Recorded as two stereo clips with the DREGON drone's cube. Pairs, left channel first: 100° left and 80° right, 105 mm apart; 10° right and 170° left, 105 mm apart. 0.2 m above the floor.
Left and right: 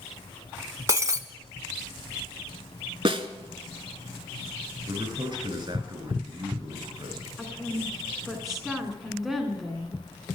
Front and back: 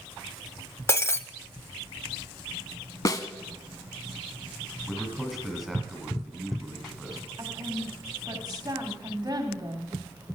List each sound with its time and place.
0.9 s breaking glass: 60° right, 0.5 m
3.0 s a snare drum: 65° right, 0.7 m
4.9 s a man speaking: 105° right, 1.9 m
7.4 s a woman speaking: 165° right, 1.4 m